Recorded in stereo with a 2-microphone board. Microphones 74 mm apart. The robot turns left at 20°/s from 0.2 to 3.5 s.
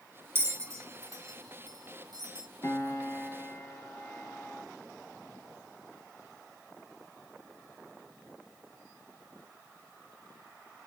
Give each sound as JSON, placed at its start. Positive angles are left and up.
{"t": 0.3, "sound": "a bell", "side_deg": -35, "distance_m": 0.6}
{"t": 2.6, "sound": "a piano", "side_deg": 45, "distance_m": 0.9}